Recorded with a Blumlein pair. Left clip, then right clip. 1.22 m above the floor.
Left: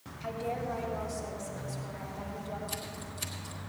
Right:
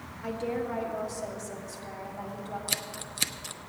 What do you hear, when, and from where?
0.2 s a woman speaking: 60° right, 2.5 m; by 2.6 s 65° right, 4.5 m
2.7 s scissors: 35° right, 0.6 m